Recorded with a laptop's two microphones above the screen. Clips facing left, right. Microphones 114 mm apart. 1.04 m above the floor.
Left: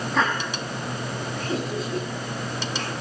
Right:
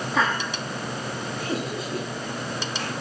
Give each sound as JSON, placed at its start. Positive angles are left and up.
{"t": 0.1, "sound": "laughter", "side_deg": -5, "distance_m": 7.0}